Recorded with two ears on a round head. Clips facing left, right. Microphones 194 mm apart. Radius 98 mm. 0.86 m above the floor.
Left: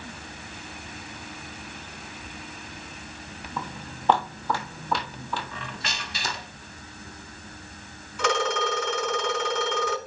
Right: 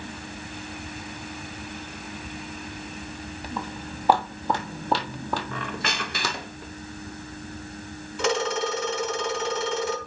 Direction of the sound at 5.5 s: 45° right (ahead or behind).